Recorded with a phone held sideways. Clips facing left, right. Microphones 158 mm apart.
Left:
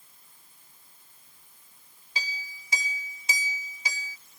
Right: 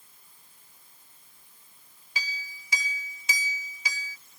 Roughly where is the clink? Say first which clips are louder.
Even; left.